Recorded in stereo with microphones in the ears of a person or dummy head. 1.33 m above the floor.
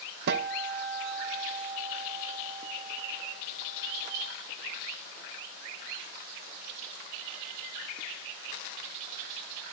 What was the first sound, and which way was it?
A guitar, 55° right (ahead or behind).